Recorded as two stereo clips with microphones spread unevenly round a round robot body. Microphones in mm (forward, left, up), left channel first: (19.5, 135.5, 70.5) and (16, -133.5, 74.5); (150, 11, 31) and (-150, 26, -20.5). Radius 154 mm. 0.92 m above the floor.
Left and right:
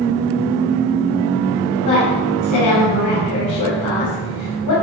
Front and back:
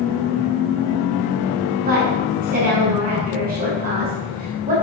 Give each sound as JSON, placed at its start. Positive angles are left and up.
{"t": 1.9, "sound": "a woman speaking", "azimuth_deg": 115, "distance_m": 5.0}